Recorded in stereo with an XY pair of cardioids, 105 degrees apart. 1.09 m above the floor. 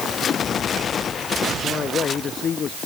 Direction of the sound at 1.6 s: 50° left.